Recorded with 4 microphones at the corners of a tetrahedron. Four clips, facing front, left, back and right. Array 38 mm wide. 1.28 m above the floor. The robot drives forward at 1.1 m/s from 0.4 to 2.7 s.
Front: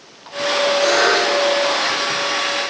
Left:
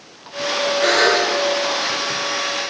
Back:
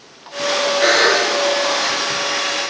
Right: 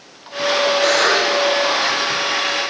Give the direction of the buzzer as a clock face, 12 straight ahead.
6 o'clock.